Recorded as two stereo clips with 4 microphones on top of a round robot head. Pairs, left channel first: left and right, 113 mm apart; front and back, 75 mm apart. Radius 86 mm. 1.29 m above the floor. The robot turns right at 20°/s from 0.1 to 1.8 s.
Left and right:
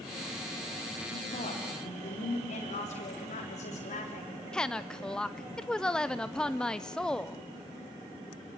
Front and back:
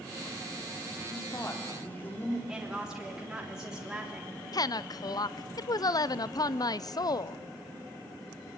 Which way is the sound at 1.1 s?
50° left.